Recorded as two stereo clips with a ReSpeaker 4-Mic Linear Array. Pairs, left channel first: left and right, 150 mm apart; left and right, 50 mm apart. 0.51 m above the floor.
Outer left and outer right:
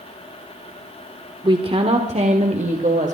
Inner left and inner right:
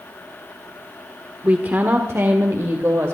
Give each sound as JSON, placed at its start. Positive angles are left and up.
{"t": 1.4, "sound": "a woman speaking", "side_deg": -30, "distance_m": 1.5}